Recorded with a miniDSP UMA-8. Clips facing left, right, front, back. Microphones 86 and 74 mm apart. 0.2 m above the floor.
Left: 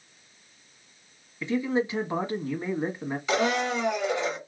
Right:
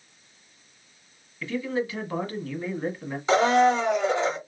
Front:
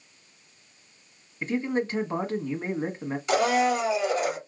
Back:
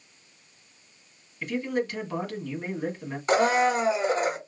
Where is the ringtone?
No ringtone in this recording.